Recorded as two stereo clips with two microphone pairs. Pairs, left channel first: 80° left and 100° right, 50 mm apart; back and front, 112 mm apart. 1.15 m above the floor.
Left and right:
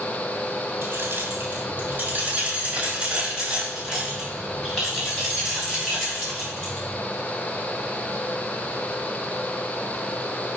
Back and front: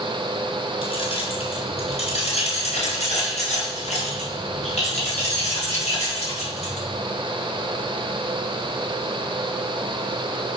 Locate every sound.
0.8 s keys jangling: 140° right, 4 m; by 6.9 s 160° left, 8 m